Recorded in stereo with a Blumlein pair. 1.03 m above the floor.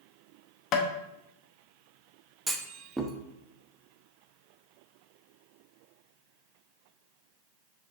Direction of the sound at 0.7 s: 35° left.